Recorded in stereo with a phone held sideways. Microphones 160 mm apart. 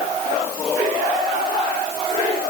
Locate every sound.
Only background noise.